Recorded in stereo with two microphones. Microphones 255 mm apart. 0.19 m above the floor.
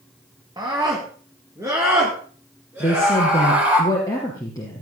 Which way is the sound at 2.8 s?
10° left (ahead or behind).